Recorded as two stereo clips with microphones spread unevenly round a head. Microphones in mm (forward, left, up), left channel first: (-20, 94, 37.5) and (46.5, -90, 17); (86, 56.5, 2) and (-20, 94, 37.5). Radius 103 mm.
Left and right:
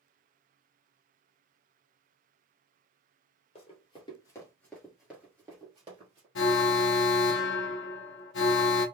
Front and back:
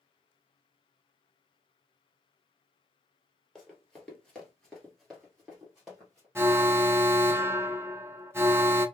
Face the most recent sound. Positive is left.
turn(degrees=85)